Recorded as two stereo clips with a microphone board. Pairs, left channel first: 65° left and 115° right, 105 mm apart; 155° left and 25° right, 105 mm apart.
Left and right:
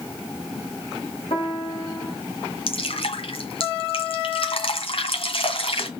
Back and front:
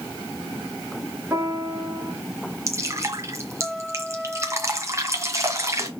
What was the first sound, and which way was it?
A piano, 45° left.